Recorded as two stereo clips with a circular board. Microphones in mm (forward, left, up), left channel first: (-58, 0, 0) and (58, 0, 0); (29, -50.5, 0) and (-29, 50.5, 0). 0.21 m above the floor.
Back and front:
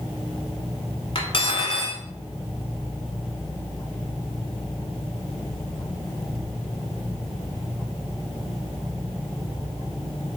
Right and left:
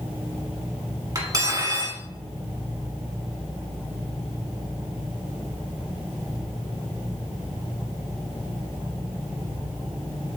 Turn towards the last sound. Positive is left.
turn(degrees=170)